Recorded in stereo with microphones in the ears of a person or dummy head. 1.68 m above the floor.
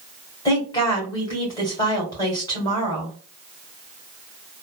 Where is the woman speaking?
20° left (ahead or behind), 1.4 m.